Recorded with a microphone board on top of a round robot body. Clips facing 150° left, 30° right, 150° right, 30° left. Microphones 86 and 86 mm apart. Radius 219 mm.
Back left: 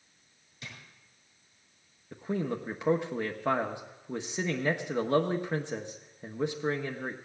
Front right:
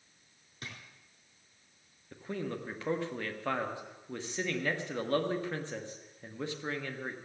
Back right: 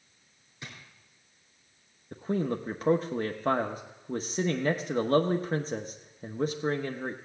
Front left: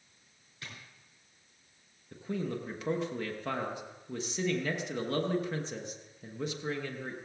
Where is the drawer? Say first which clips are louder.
Front right 1 dB, back right 2 dB; 75° right, 3 m.